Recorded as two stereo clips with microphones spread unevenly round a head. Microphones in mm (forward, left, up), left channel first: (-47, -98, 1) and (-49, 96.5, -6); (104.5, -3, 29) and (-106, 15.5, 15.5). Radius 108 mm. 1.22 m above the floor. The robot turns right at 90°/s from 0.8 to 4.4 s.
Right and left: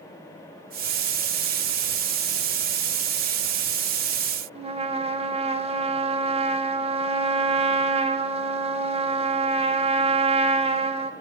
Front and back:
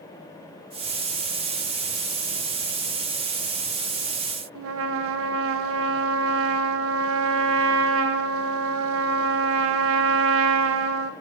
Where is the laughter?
No laughter in this recording.